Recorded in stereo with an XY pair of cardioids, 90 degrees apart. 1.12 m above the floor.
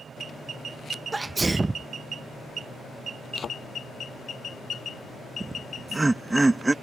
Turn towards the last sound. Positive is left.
turn(degrees=-20)